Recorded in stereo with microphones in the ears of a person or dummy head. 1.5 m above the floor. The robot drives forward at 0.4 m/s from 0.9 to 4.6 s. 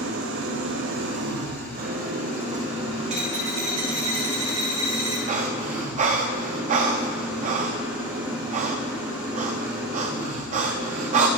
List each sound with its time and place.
0.0 s an engine running: 75° right (ahead or behind), 0.8 m; by 11.4 s 25° right (ahead or behind), 1.9 m
3.1 s a dropped coin: 40° right (ahead or behind), 1.5 m; by 5.2 s 30° right (ahead or behind), 1.9 m
5.3 s breathing: 45° right (ahead or behind), 0.7 m